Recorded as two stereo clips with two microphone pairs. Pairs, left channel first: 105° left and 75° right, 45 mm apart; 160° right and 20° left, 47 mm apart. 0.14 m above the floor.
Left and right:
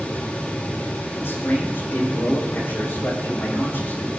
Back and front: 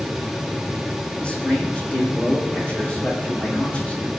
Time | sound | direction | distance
1.2 | a man speaking | 140° left | 7 m